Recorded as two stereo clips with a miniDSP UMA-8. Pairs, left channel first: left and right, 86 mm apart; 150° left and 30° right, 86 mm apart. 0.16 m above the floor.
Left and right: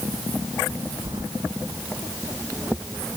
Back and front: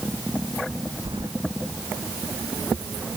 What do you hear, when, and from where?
1.1 s keys jangling: 55° right